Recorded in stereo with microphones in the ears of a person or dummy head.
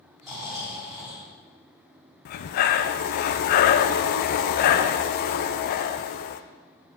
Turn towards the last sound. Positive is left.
turn(degrees=50)  # may be behind; listen again after turning